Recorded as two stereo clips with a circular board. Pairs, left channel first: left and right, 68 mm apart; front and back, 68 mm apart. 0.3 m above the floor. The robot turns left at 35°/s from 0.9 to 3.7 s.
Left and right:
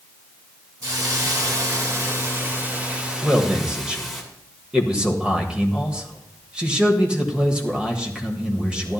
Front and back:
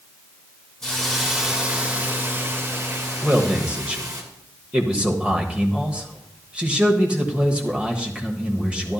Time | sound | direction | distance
0.8 | a hiss | 80° right | 3 m
3.2 | a man speaking | 120° right | 1.3 m